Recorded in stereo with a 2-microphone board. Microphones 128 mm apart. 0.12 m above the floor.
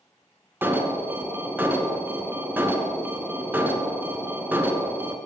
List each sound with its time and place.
0.6 s an alarm: 15° right (ahead or behind), 1.4 m